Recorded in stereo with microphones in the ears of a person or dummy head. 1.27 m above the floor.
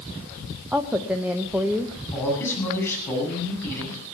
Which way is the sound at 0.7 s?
10° right (ahead or behind).